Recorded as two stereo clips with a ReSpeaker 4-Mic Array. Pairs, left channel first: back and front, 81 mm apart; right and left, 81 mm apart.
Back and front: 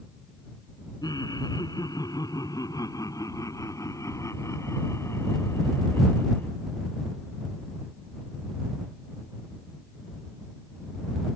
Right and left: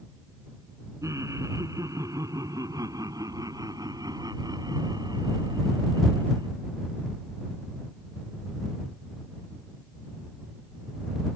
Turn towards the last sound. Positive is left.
turn(degrees=115)